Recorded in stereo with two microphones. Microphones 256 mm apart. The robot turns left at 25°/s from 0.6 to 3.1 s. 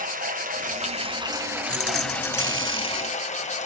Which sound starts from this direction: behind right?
Running water, at 0.0 s.